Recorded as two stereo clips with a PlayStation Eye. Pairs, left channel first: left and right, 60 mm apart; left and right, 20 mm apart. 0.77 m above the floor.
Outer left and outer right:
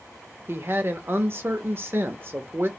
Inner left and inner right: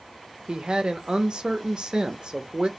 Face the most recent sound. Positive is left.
turn(degrees=-40)  # may be behind; listen again after turning